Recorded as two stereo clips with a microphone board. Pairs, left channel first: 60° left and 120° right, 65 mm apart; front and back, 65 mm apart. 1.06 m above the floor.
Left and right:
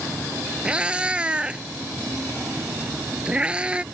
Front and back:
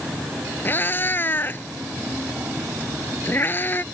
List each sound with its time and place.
0.7 s a cat meowing: 50° right